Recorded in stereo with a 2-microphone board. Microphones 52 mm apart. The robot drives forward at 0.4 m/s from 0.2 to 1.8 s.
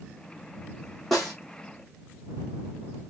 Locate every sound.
1.1 s a snare drum: centre (ahead or behind), 3 m